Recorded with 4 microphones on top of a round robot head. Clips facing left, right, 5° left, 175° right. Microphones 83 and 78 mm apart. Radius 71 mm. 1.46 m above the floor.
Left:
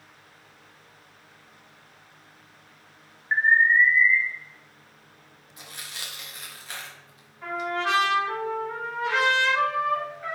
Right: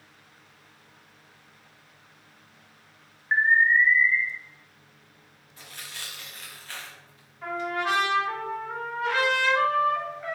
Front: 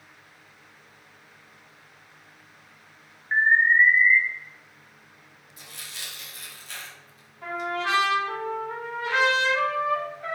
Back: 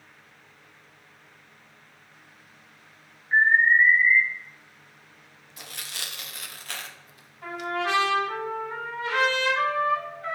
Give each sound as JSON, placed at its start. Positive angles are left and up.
{"t": 3.3, "sound": "an alarm", "azimuth_deg": -15, "distance_m": 1.2}
{"t": 5.6, "sound": "tearing paper", "azimuth_deg": 165, "distance_m": 0.5}
{"t": 7.4, "sound": "a trumpet", "azimuth_deg": 0, "distance_m": 1.4}